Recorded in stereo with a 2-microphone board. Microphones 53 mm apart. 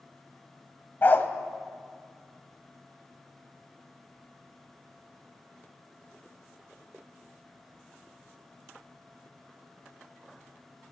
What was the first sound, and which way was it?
A dog barking, 40° left (ahead or behind).